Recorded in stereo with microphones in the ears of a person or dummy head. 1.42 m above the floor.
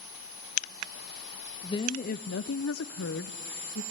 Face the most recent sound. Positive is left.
turn(degrees=55)  # may be behind; listen again after turning